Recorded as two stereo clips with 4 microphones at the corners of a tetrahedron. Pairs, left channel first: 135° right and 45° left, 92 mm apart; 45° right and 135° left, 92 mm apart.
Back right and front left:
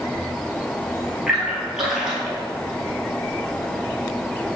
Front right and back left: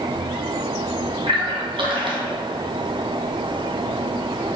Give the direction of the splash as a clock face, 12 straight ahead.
8 o'clock.